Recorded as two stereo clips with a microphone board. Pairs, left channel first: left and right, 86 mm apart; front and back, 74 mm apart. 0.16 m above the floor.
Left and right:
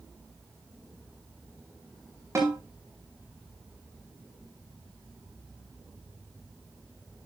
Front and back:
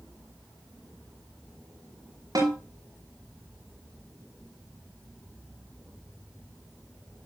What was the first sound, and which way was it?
A snare drum, 150° right.